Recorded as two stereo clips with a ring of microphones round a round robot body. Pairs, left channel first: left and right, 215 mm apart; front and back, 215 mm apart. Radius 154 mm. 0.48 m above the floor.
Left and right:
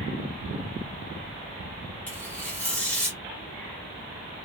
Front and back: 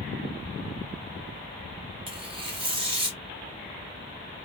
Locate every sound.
2.1 s tearing paper: 160° left, 1.2 m